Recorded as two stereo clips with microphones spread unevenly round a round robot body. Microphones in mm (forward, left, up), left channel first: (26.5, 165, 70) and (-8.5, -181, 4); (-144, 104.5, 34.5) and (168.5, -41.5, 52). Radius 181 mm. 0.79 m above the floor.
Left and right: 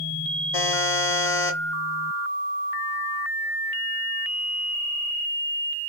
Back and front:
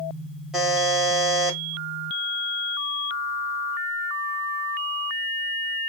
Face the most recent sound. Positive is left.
turn(degrees=65)